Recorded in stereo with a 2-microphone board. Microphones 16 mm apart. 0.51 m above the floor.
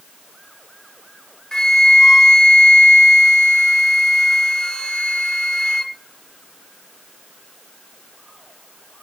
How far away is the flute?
About 1.1 m.